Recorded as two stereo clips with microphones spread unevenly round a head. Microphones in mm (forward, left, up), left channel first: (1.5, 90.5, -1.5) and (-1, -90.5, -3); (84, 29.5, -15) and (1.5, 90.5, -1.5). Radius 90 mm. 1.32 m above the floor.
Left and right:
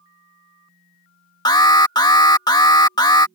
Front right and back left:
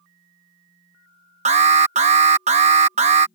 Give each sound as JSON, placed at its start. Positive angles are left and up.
{"t": 1.4, "sound": "an alarm", "azimuth_deg": 160}